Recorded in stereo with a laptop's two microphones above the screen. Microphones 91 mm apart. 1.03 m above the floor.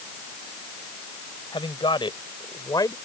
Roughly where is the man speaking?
Left.